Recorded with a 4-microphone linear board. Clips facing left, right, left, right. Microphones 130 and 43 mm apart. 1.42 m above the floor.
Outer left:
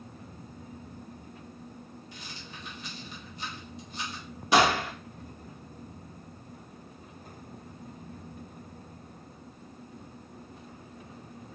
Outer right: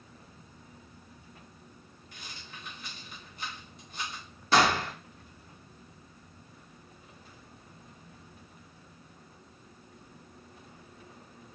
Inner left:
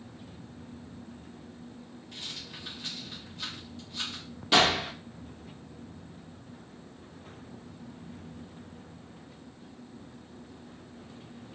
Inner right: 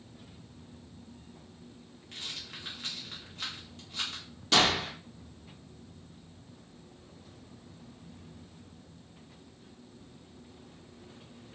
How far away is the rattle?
About 1.6 m.